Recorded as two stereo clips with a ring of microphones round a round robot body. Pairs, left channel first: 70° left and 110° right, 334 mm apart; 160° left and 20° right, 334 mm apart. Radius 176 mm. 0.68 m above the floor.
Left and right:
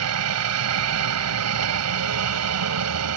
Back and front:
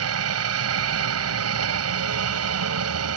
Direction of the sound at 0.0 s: 70° right.